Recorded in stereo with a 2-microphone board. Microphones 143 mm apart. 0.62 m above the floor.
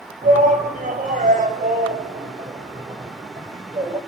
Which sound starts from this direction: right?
A shout, at 0.2 s.